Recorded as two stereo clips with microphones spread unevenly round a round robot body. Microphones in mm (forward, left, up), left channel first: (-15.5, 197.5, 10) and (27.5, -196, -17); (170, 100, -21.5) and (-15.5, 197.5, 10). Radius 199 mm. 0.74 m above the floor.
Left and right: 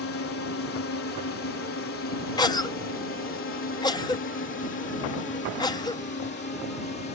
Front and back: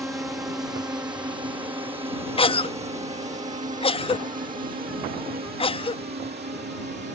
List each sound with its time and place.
0.0 s a drone: 75° left; by 7.2 s 160° left
2.4 s a cough: 15° left